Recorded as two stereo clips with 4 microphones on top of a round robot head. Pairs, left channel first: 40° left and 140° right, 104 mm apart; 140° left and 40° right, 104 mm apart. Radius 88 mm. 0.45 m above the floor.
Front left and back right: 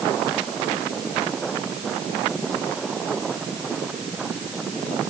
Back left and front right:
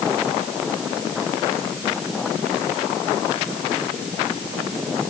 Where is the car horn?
No car horn in this recording.